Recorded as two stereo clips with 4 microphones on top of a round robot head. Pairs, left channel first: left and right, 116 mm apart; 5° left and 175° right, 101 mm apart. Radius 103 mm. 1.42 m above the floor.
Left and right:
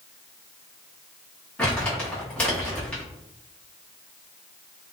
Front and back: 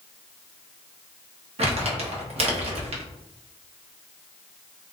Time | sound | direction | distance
1.6 | crumpling | 170° left | 0.8 m